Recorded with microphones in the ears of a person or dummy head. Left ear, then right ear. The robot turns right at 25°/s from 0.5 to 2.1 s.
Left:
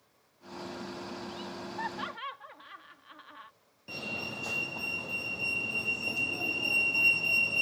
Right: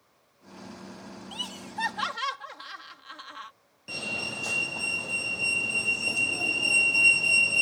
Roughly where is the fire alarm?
Centre.